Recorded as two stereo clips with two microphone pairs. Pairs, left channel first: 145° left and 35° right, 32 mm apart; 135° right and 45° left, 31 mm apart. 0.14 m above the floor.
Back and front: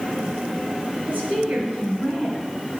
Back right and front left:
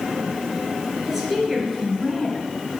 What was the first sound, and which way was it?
A woman speaking, 30° right.